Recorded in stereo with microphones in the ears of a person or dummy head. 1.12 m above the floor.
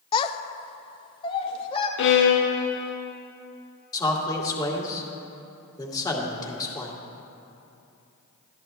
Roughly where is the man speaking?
Centre.